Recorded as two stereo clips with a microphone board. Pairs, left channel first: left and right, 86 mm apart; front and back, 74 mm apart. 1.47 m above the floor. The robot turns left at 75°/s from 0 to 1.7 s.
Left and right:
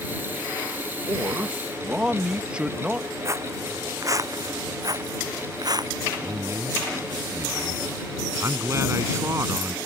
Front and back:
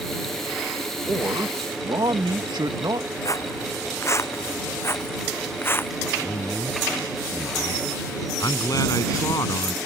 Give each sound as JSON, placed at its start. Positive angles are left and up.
{"t": 1.1, "sound": "a man speaking", "azimuth_deg": -120}
{"t": 3.2, "sound": "footsteps", "azimuth_deg": -35}
{"t": 6.2, "sound": "a man speaking", "azimuth_deg": -35}